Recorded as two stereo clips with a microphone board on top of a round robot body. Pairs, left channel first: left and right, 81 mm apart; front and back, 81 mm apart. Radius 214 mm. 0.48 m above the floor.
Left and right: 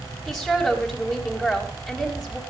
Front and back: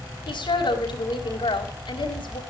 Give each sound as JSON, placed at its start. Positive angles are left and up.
{"t": 0.3, "sound": "a woman speaking", "azimuth_deg": 0, "distance_m": 4.0}